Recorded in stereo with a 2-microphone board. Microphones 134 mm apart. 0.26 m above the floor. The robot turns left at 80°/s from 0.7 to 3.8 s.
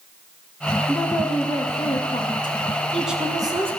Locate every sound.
0.9 s a woman speaking: 170° left, 2 m; by 3.7 s 55° right, 2 m